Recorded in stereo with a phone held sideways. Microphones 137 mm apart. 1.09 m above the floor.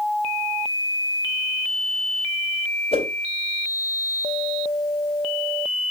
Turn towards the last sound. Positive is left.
turn(degrees=45)  # may be behind; listen again after turning